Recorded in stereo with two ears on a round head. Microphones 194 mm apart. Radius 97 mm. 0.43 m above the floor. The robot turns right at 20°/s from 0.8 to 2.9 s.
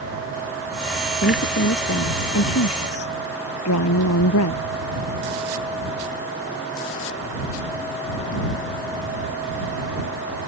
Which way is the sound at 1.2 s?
45° left.